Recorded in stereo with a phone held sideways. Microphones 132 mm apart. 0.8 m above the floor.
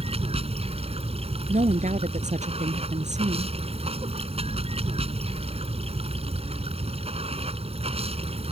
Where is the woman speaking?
65° right (ahead or behind).